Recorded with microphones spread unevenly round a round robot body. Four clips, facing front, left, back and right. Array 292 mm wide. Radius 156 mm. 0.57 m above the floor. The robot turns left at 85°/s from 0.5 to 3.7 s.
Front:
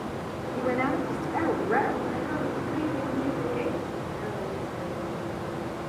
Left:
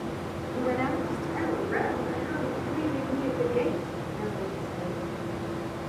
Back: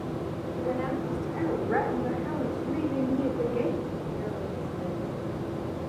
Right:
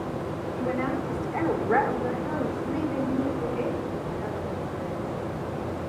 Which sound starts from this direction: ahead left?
A woman speaking, at 0.6 s.